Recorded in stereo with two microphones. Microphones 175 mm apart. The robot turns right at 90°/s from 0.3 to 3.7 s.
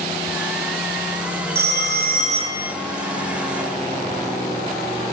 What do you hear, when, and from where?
1.6 s a phone ringing: 115° right, 2.0 m; by 2.7 s 10° right, 2.0 m